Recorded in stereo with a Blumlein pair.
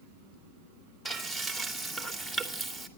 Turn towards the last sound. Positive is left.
turn(degrees=5)